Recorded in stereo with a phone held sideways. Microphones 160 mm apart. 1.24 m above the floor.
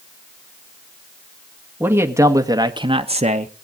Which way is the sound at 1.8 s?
10° right (ahead or behind).